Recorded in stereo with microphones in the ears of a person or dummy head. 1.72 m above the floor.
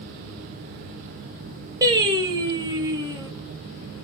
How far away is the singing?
About 1.0 m.